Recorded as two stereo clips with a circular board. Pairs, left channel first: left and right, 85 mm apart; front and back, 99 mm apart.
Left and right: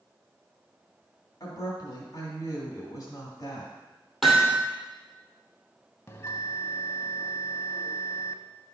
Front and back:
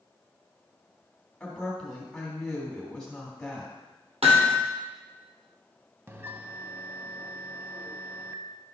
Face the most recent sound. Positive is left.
turn(degrees=125)